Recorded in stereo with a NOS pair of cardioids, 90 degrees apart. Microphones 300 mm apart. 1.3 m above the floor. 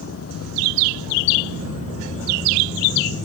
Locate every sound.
0.0 s a vehicle: 50° left; by 3.2 s 40° left